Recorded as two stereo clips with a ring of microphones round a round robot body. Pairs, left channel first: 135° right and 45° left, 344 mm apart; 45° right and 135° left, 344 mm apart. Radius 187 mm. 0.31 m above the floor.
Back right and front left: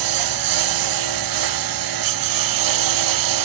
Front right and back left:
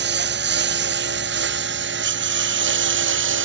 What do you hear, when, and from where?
0.0 s a lawn mower: 75° left